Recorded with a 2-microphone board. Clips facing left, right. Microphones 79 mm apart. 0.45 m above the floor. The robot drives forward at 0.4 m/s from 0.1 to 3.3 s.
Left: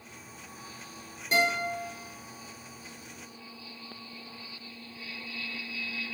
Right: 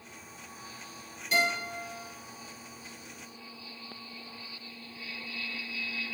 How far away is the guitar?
About 1.7 m.